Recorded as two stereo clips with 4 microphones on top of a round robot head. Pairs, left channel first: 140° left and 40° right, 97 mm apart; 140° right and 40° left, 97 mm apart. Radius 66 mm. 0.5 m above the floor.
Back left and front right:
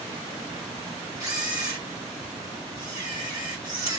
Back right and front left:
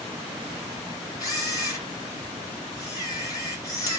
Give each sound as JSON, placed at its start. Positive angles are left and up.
{"t": 1.2, "sound": "a camera shutter", "azimuth_deg": -90, "distance_m": 2.5}